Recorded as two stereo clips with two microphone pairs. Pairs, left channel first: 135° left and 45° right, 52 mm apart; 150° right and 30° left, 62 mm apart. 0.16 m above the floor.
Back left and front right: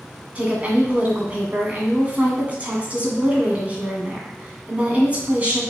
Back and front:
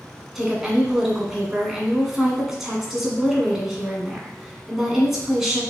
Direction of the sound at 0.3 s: 45° right.